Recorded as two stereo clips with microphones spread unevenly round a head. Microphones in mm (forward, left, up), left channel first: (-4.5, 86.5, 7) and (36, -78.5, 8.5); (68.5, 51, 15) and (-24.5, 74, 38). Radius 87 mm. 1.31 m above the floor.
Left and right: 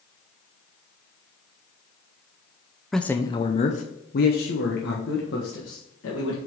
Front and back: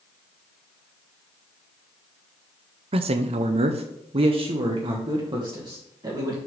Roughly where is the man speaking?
Behind.